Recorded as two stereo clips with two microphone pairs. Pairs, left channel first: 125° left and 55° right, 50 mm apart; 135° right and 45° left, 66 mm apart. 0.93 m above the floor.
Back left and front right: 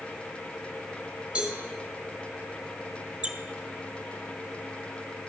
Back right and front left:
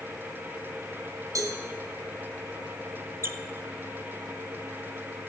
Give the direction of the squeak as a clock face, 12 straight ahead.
12 o'clock.